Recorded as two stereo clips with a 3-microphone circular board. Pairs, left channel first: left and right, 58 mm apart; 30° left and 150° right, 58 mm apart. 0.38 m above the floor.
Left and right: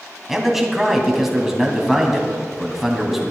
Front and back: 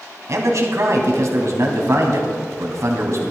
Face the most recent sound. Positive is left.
turn(degrees=-175)